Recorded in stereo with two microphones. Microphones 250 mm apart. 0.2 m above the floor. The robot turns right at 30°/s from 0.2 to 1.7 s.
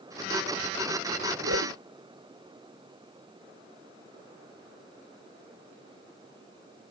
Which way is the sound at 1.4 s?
70° right (ahead or behind).